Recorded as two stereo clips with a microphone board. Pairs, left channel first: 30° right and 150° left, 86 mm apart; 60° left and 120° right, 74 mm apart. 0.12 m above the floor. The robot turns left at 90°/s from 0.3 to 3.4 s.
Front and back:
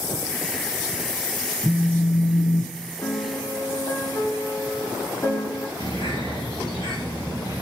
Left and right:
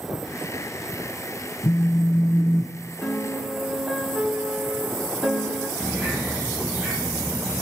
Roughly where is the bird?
Ahead right.